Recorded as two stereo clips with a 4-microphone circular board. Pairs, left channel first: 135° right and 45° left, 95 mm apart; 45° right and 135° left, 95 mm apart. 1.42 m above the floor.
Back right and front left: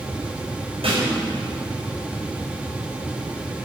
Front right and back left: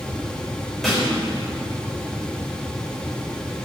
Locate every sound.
0.8 s a snare drum: 45° left, 5.5 m